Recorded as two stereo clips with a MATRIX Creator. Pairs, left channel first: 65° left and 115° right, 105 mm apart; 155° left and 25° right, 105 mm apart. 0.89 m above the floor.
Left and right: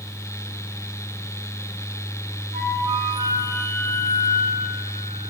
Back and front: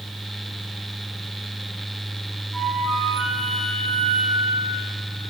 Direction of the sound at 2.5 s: 110° right.